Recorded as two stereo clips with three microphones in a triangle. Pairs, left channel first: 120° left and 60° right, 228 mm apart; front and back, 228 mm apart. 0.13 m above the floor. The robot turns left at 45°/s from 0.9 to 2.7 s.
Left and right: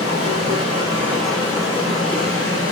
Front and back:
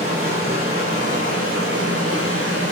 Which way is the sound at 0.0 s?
135° right.